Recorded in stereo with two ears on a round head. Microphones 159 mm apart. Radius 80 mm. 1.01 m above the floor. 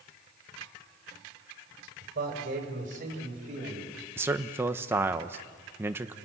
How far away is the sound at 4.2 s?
About 1.0 m.